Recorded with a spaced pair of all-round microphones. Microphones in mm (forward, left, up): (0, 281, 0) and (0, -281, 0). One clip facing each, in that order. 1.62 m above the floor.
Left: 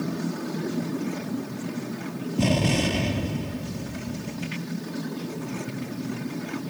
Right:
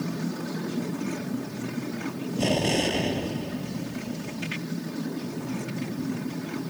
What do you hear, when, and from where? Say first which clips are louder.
2.4 s an explosion: left 2 dB; 30° left (ahead or behind)